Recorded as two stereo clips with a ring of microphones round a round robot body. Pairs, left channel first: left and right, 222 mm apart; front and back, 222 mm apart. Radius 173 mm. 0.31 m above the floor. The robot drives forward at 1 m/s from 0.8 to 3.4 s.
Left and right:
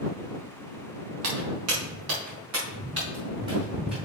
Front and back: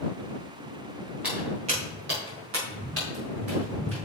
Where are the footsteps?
95° right, 3.5 m; by 4.0 s 150° right, 6.5 m.